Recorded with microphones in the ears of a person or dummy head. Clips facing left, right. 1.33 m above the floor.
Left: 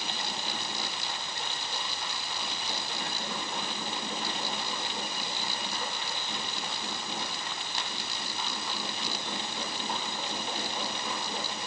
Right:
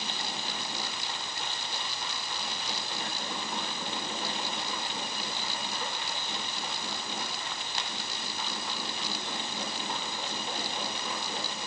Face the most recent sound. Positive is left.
No sound to turn to.